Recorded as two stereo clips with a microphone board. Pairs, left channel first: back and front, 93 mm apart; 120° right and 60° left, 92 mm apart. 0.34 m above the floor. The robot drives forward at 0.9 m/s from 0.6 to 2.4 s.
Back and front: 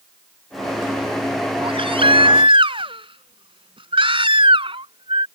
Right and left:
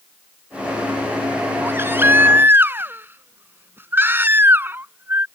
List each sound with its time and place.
1.6 s a baby crying: 5° right